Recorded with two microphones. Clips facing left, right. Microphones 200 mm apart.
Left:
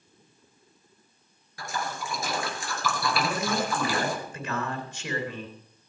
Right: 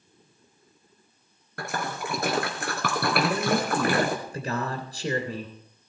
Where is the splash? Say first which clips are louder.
Right 2 dB; 65° right (ahead or behind), 2.5 m.